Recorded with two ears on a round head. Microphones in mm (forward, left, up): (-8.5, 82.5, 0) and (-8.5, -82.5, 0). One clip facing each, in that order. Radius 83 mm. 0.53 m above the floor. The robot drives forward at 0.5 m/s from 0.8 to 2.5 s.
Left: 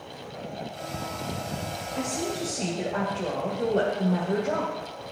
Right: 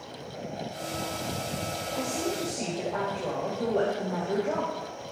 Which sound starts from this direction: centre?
A woman speaking, at 1.9 s.